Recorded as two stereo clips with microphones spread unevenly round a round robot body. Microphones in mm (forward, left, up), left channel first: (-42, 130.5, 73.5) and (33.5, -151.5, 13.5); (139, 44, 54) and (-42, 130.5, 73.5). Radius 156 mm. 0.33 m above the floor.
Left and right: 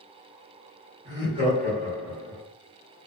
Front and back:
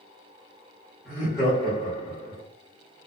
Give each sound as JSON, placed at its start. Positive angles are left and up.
{"t": 1.1, "sound": "laughter", "azimuth_deg": -75, "distance_m": 1.2}